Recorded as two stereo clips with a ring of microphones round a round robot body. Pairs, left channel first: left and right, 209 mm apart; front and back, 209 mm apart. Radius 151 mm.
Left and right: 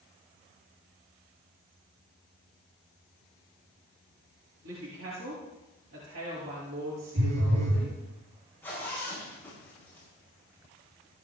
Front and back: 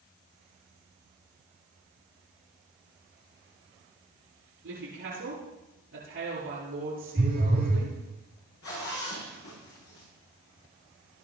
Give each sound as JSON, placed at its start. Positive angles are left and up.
{"t": 4.6, "sound": "a woman speaking", "azimuth_deg": -125, "distance_m": 8.0}
{"t": 7.2, "sound": "a phone buzzing", "azimuth_deg": -105, "distance_m": 4.0}
{"t": 8.6, "sound": "a zipper", "azimuth_deg": 10, "distance_m": 8.5}